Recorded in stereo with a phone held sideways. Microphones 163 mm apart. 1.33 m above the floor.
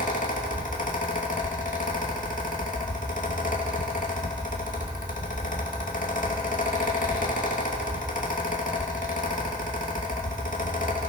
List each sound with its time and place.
0.0 s a fan: 55° left (ahead or behind), 2.5 m